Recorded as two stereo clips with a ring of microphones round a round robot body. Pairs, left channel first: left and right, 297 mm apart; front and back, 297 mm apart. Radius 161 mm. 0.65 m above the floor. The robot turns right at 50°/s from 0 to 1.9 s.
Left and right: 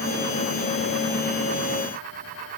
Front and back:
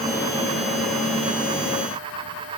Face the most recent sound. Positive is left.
No sound to turn to.